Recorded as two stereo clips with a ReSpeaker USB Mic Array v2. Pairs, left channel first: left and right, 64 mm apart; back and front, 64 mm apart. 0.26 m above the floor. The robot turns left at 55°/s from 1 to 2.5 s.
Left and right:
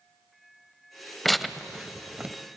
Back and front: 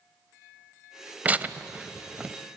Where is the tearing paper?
10° left, 0.7 m; by 2.4 s 50° right, 0.7 m.